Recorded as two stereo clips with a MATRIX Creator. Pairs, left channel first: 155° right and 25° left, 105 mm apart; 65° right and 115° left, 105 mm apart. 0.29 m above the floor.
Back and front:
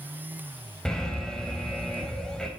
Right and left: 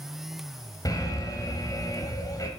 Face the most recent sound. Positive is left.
turn(degrees=-75)